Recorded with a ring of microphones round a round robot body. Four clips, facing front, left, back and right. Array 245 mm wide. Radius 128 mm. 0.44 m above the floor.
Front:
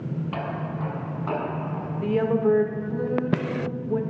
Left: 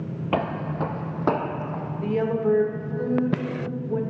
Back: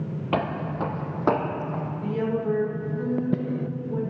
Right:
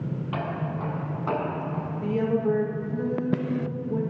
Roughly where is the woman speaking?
Ahead left.